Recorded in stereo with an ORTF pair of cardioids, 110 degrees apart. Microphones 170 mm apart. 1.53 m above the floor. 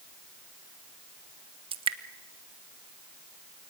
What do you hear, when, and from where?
1.7 s dripping: 35° right, 1.4 m